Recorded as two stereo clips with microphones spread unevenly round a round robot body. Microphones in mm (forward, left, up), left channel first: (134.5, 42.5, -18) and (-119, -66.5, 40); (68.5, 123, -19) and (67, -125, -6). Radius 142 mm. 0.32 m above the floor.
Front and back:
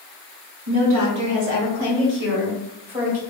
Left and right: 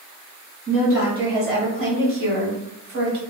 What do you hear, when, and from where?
0.7 s a woman speaking: 155° right, 1.6 m; by 3.2 s 90° right, 1.7 m